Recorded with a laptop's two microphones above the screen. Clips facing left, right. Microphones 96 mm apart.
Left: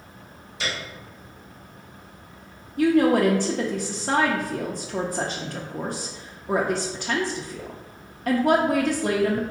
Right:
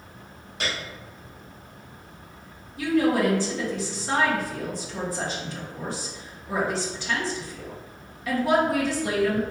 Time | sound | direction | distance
0.6 | a piano | 60° right (ahead or behind) | 1.6 m
2.8 | a woman speaking | 50° left (ahead or behind) | 0.5 m